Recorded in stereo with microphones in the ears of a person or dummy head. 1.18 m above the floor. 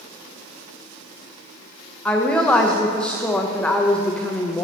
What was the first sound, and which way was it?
A woman speaking, 10° left (ahead or behind).